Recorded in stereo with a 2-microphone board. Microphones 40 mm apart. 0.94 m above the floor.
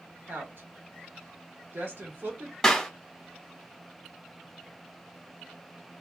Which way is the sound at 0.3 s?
60° right (ahead or behind).